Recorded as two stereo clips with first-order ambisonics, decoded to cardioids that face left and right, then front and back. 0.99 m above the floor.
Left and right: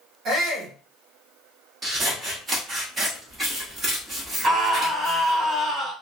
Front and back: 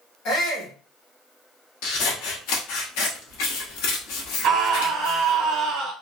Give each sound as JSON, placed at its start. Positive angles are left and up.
{"t": 0.2, "sound": "a shout", "azimuth_deg": -40, "distance_m": 2.0}
{"t": 1.8, "sound": "scissors", "azimuth_deg": -15, "distance_m": 1.2}
{"t": 4.4, "sound": "a scream", "azimuth_deg": -160, "distance_m": 1.0}